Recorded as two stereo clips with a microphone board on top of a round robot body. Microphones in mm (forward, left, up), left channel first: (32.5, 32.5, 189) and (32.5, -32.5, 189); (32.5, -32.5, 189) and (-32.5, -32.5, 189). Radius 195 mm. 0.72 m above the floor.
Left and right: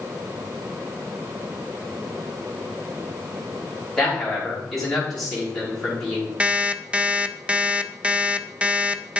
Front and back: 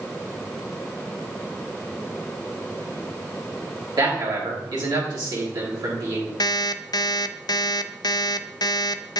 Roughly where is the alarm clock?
Ahead.